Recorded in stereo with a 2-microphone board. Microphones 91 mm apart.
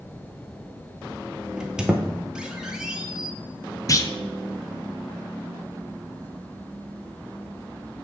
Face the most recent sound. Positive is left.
turn(degrees=40)  # may be behind; listen again after turning